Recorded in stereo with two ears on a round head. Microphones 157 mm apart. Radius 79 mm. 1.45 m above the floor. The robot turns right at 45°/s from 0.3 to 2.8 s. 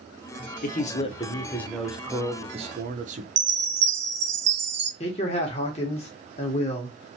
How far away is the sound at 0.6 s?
About 0.6 m.